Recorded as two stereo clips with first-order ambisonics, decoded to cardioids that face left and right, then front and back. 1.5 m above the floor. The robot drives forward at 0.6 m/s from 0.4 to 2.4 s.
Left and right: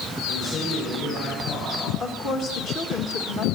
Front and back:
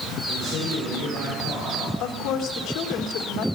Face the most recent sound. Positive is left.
turn(degrees=40)